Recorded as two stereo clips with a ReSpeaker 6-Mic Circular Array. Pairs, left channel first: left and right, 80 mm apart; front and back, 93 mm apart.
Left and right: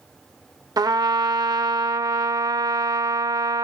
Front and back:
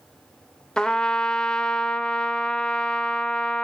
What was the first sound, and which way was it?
A trumpet, 80° right.